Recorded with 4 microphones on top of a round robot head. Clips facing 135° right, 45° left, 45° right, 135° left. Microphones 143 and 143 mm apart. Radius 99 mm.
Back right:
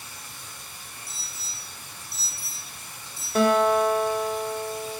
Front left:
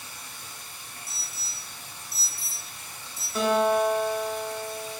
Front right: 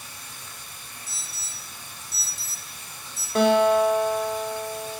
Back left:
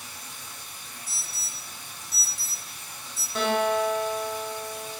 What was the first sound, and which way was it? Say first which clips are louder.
Running water: even, even; 5° right.